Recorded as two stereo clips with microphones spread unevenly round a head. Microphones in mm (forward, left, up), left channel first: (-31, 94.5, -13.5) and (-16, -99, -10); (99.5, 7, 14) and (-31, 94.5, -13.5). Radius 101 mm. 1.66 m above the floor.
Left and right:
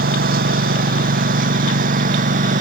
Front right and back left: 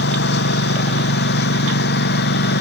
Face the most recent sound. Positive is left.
turn(degrees=-30)